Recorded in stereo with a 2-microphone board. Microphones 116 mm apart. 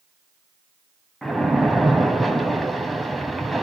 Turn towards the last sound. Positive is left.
turn(degrees=0)  # may be behind; listen again after turning